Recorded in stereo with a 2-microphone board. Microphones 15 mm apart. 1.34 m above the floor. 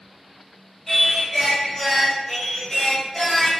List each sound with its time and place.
0.9 s singing: 20° left (ahead or behind), 1.0 m